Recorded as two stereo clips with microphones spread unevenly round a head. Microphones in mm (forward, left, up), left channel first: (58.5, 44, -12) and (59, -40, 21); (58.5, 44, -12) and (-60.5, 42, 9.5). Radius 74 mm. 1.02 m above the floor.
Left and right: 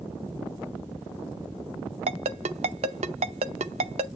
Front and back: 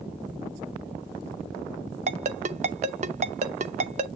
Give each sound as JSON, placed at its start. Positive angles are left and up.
{"t": 2.1, "sound": "a ringtone", "azimuth_deg": -130, "distance_m": 0.5}